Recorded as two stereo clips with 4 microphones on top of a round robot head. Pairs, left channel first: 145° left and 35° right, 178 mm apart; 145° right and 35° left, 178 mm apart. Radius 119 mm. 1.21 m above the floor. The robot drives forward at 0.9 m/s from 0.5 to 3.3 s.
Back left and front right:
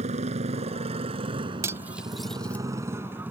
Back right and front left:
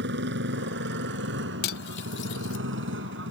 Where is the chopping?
No chopping in this recording.